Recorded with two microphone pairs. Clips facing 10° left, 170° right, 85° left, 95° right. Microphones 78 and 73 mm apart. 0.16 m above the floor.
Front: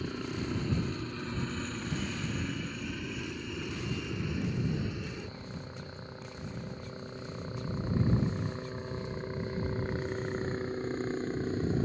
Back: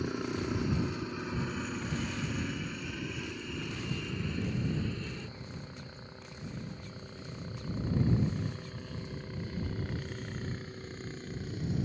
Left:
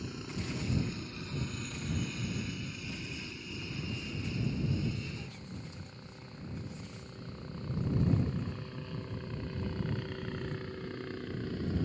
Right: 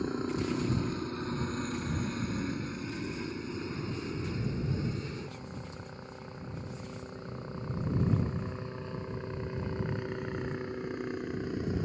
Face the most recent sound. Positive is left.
turn(degrees=-25)